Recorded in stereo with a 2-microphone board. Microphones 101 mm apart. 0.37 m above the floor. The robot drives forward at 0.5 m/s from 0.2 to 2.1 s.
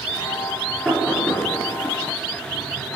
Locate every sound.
0.8 s knocking: centre (ahead or behind), 4.5 m